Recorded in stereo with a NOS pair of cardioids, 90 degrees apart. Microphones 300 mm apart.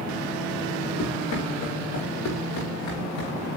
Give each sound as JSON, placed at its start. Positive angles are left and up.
{"t": 1.0, "sound": "running footsteps", "azimuth_deg": 70, "distance_m": 6.5}